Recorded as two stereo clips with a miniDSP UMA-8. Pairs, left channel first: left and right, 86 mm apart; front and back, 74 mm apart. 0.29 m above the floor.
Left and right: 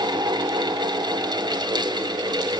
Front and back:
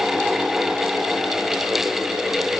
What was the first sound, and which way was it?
Only background noise.